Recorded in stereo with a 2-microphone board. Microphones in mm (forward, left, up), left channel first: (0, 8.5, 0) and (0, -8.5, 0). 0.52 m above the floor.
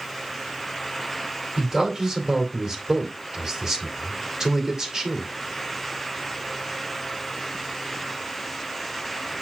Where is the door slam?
No door slam in this recording.